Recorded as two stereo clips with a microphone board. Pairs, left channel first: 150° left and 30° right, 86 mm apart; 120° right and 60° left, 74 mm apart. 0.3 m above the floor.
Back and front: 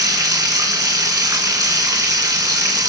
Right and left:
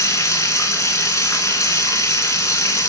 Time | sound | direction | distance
0.0 | running water | 75° right | 3 m